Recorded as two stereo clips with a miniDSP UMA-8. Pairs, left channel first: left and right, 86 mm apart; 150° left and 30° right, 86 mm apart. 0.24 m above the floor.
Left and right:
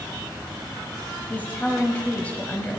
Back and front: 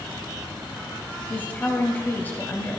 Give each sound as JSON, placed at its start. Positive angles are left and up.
{"t": 1.3, "sound": "a woman speaking", "azimuth_deg": 125, "distance_m": 1.0}